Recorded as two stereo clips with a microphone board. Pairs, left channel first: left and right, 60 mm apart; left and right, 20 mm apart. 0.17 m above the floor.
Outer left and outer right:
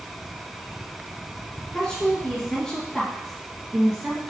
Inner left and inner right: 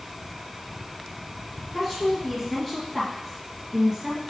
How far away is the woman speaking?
About 2.0 m.